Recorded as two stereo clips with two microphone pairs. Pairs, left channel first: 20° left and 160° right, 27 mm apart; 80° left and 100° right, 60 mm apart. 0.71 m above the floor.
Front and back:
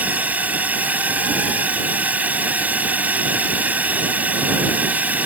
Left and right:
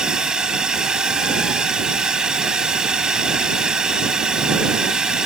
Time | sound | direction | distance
0.0 | a drone | 175° right | ?